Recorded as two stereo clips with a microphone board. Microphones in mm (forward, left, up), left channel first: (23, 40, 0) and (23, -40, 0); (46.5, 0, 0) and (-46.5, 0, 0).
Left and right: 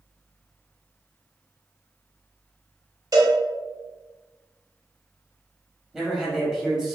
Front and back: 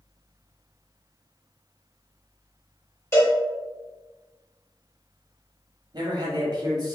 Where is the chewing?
I don't hear chewing.